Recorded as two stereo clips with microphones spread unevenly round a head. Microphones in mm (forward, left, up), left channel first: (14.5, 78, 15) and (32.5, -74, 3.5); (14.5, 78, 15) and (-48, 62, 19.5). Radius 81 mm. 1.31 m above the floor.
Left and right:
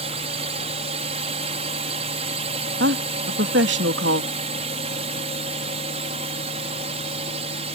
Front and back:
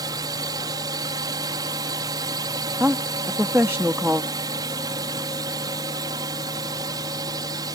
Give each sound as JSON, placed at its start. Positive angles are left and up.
{"t": 0.0, "sound": "a drone", "azimuth_deg": -135}
{"t": 2.8, "sound": "a woman speaking", "azimuth_deg": -90}